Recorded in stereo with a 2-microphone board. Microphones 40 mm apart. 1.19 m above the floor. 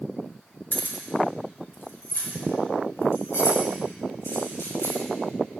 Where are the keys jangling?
50° left (ahead or behind), 2 m; by 5.0 s 75° left (ahead or behind), 8 m.